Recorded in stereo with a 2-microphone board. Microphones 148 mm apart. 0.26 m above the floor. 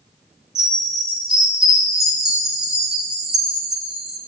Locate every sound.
0.6 s a chime: 5° right (ahead or behind), 2 m